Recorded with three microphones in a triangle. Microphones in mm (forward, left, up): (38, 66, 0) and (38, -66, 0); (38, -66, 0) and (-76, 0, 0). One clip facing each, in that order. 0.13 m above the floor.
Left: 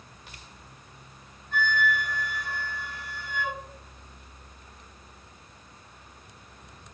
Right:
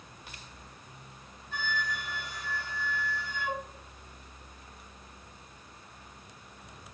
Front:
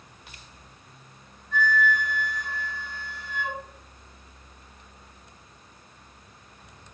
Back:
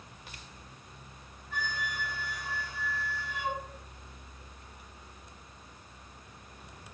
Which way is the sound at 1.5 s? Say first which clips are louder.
Left 8 dB, front 13 dB; 70° left.